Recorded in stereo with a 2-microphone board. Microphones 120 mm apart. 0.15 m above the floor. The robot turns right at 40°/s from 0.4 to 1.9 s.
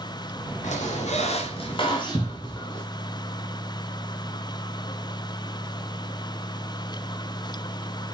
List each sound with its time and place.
0.6 s a squeak: 90° left, 4 m; by 2.8 s 140° left, 4 m
2.1 s a cupboard door: 35° left (ahead or behind), 0.7 m